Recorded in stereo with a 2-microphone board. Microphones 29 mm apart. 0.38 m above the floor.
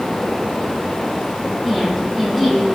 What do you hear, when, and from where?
1.6 s a woman speaking: 10° left (ahead or behind), 9 m